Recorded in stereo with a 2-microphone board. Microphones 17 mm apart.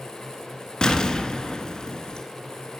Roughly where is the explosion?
Left.